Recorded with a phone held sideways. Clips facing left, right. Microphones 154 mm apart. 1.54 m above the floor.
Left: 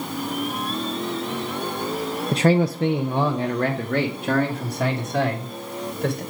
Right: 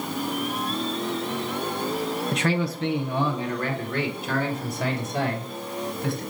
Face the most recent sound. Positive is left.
turn(degrees=80)